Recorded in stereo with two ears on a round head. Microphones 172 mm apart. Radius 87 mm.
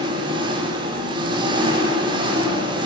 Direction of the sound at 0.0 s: 25° right (ahead or behind).